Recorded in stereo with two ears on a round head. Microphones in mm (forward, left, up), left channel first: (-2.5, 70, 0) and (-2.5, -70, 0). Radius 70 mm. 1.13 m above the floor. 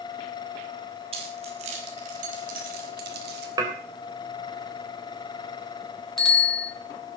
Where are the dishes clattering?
25° right (ahead or behind), 3.5 m.